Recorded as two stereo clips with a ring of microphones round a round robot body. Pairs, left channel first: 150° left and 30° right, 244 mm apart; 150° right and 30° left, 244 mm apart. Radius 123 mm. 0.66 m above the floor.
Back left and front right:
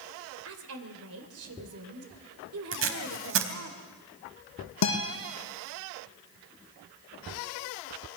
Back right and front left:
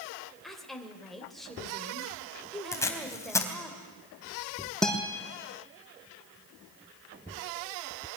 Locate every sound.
0.4 s a woman speaking: 60° right, 2.5 m
2.7 s tape being pulled: 70° right, 3 m
4.8 s a guitar: 120° left, 6 m